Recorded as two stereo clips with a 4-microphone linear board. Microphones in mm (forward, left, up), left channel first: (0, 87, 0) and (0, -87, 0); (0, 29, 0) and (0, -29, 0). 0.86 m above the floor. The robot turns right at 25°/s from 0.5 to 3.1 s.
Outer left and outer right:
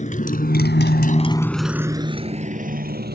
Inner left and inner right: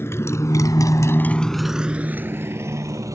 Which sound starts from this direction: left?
A motorcycle, at 0.0 s.